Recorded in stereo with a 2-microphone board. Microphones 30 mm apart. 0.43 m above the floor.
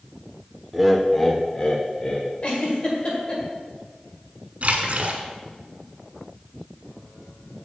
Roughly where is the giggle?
Left.